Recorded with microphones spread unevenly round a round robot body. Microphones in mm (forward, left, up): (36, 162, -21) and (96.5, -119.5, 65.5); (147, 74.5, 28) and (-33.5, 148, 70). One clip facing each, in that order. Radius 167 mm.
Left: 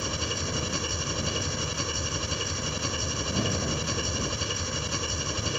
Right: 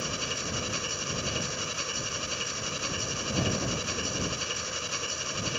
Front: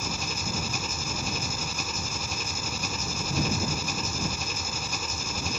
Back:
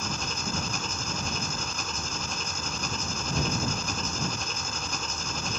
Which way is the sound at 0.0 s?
60° left.